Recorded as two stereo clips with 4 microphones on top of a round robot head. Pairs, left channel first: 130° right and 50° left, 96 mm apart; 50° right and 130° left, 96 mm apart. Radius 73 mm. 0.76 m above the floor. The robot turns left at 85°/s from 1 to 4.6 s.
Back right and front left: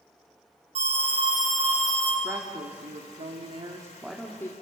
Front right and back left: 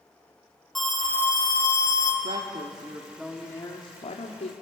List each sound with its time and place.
0.8 s an alarm: 40° left, 7.5 m; by 2.1 s 60° right, 7.5 m
2.2 s a woman speaking: 125° left, 2.0 m; by 4.5 s 70° right, 2.0 m